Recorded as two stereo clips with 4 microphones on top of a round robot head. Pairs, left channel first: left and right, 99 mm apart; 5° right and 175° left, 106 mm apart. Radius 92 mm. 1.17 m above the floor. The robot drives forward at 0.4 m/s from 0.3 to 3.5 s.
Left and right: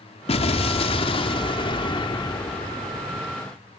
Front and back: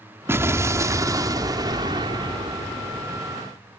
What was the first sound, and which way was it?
An explosion, 110° left.